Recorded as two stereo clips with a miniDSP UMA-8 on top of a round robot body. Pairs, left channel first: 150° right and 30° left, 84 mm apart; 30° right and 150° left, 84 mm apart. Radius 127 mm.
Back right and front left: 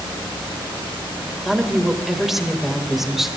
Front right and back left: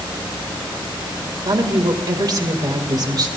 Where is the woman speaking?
115° left, 2.5 m.